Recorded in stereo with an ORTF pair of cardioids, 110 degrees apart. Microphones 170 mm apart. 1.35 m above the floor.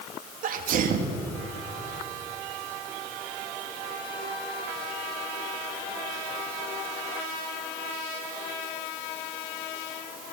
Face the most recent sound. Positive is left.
turn(degrees=-60)